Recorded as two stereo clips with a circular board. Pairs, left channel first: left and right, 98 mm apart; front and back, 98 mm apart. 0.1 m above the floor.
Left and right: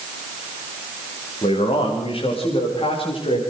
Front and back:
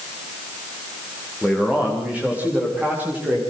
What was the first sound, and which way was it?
A man speaking, 100° left.